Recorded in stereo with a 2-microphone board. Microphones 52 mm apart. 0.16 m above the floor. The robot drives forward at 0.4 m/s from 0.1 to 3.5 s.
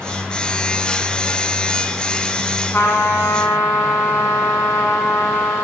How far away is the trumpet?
About 8 m.